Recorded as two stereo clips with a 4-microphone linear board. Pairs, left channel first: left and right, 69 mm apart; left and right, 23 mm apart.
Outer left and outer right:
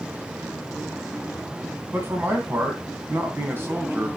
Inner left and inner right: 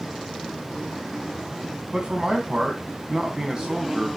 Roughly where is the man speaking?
Right.